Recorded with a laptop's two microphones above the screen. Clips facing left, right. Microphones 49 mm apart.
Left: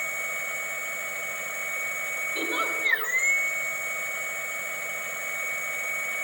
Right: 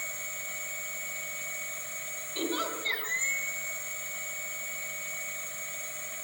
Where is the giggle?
20° left (ahead or behind), 4 m.